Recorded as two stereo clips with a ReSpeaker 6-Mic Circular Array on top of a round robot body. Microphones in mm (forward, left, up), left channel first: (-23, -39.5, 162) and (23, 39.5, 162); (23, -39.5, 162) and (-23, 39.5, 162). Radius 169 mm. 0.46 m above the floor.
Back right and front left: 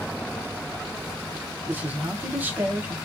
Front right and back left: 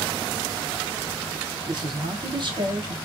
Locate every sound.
1.7 s a man speaking: 125° left, 1.2 m